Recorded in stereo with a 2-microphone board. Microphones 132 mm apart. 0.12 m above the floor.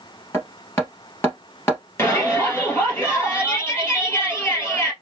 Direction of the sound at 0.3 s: 20° left (ahead or behind).